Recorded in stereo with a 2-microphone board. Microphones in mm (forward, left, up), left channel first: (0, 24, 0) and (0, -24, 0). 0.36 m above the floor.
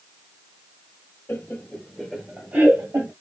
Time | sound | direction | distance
1.3 | laughter | 40° left (ahead or behind) | 1.2 m